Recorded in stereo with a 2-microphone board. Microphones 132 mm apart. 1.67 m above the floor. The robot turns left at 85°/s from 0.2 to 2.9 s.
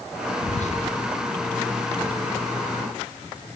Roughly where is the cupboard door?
No cupboard door in this recording.